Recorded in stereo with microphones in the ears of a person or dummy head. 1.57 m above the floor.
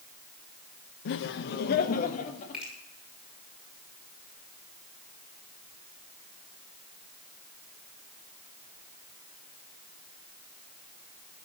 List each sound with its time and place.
1.1 s laughter: 55° left (ahead or behind), 0.9 m; by 2.6 s 40° left (ahead or behind), 2.5 m
2.5 s a finger snap: 5° right (ahead or behind), 6 m